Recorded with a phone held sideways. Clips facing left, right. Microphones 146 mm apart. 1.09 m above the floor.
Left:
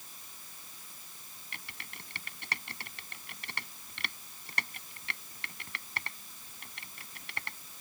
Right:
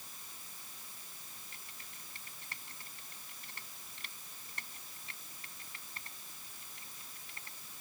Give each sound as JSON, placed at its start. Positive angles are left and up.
{"t": 1.5, "sound": "typing on a keyboard", "side_deg": 85}